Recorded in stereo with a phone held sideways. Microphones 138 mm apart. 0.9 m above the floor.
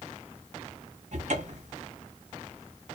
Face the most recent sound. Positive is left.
turn(degrees=-60)  # may be behind; listen again after turning